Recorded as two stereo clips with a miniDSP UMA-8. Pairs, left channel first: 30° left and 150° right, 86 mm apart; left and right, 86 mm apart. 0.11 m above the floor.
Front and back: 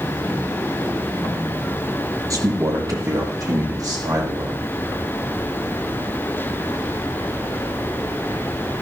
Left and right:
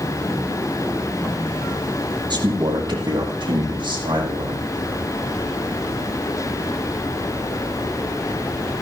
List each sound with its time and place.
2.3 s a man speaking: 110° right, 3 m; by 4.7 s 105° right, 6.5 m